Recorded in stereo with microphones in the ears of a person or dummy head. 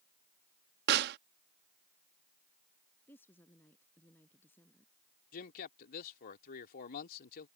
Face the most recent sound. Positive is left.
turn(degrees=50)  # may be behind; listen again after turning